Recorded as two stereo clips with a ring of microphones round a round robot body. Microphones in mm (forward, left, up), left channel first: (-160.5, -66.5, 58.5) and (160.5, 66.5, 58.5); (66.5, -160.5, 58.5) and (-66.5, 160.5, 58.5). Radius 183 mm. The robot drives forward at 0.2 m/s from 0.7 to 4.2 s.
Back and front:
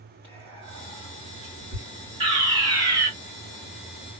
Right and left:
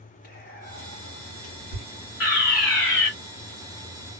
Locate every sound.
0.2 s whispering: 75° right, 3 m; by 1.9 s 80° right, 2.5 m
2.2 s a fire alarm: 50° right, 2.5 m; by 3.1 s 55° right, 2.5 m